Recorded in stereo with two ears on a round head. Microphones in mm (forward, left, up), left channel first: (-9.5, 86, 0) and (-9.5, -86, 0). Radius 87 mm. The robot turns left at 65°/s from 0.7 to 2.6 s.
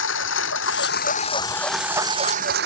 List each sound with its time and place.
0.0 s a lawn mower: 70° left; by 2.7 s 55° right